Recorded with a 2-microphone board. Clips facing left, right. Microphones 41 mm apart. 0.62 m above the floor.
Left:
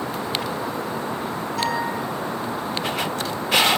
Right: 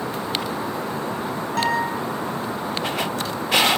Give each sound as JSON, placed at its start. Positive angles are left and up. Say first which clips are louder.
{"t": 1.6, "sound": "a guitar", "louder": "right 3 dB", "side_deg": -60, "distance_m": 5.5}